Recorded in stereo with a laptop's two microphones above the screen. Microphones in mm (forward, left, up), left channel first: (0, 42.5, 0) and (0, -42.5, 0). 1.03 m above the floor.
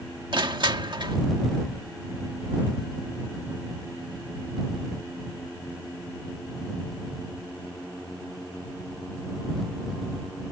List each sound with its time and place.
0.3 s crushing: 70° right (ahead or behind)